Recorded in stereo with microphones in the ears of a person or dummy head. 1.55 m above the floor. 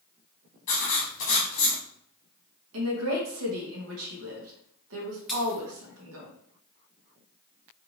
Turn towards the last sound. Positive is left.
turn(degrees=0)  # may be behind; listen again after turning